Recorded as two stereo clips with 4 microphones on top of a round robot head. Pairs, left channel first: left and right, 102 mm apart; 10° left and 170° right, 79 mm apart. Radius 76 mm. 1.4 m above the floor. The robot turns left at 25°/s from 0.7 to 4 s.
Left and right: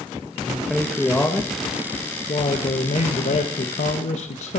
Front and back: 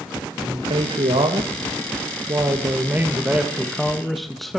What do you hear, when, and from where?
0.4 s a man speaking: straight behind, 1.9 m; by 4.6 s 100° left, 1.9 m